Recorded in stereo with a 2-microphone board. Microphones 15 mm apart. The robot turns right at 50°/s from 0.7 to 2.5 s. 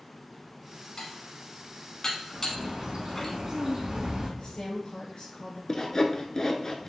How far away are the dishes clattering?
About 1.1 m.